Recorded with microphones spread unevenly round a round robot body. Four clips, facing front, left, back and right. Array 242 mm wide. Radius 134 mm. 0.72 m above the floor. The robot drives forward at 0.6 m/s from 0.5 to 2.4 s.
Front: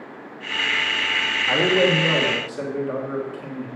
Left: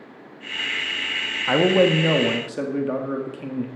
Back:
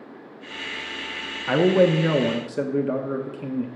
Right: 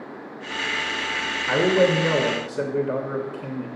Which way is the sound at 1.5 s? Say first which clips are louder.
Left 2 dB, back 2 dB; 130° left.